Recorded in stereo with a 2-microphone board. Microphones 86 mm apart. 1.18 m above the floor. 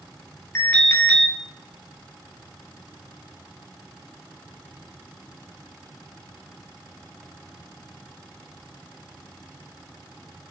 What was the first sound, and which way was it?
An alarm, 30° left (ahead or behind).